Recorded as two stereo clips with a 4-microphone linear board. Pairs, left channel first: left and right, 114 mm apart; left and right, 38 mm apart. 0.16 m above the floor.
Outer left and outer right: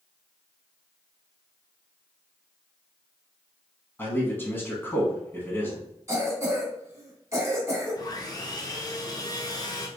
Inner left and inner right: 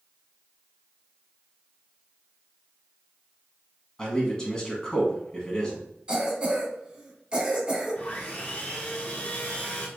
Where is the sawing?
40° left (ahead or behind), 0.9 m.